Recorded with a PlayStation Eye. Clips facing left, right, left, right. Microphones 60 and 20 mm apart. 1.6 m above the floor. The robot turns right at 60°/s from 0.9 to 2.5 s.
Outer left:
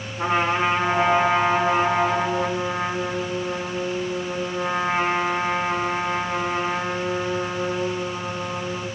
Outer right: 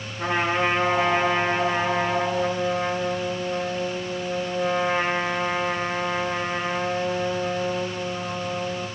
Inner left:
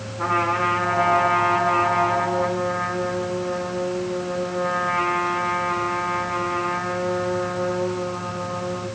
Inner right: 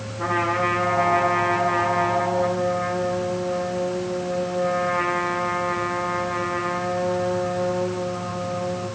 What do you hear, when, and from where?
0.2 s a trumpet: 30° left, 9.5 m; by 8.9 s 125° left, 9.5 m